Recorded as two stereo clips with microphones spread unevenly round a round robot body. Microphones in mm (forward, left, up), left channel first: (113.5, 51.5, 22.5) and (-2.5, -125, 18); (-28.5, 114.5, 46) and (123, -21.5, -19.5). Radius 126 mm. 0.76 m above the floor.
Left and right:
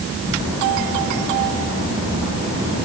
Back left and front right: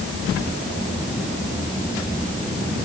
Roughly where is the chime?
I don't hear a chime.